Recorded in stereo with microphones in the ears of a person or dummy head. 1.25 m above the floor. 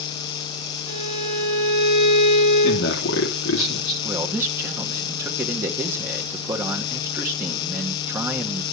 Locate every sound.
0.9 s a violin: 40° left (ahead or behind), 7.5 m
2.6 s a man speaking: 70° left (ahead or behind), 3.5 m
4.0 s a man speaking: 15° right (ahead or behind), 1.3 m